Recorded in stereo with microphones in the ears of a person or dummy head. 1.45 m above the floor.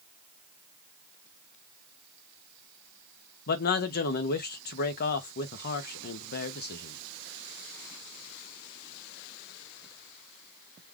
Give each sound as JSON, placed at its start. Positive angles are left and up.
{"t": 3.5, "sound": "a man speaking", "side_deg": 55, "distance_m": 0.8}